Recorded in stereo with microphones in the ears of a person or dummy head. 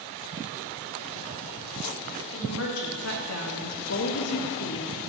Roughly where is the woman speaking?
Left.